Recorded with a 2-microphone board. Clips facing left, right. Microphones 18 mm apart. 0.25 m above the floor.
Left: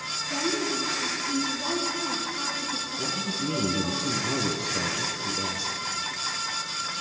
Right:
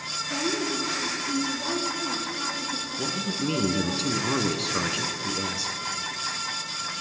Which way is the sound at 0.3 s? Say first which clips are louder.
Even; 5° right (ahead or behind).